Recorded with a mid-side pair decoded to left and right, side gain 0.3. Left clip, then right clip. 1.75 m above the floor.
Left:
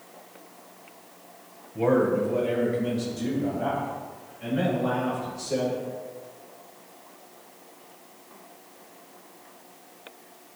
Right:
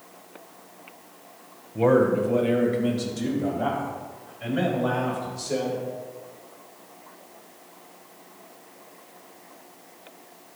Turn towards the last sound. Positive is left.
turn(degrees=-80)